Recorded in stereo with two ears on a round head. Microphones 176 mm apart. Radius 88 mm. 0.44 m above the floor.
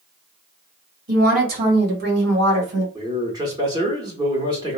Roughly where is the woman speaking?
Right.